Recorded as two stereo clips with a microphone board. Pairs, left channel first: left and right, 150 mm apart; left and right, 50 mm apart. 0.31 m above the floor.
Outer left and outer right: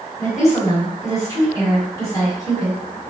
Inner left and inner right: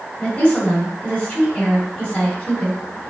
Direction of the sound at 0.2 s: 25° left (ahead or behind).